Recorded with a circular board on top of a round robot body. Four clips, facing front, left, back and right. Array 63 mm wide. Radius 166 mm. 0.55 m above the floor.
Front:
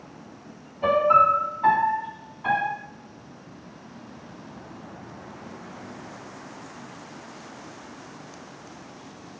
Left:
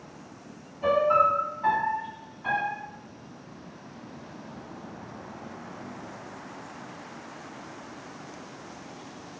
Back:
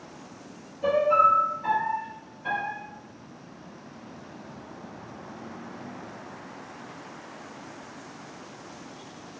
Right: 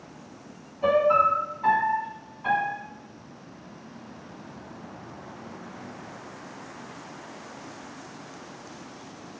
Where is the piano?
10° right, 0.8 m.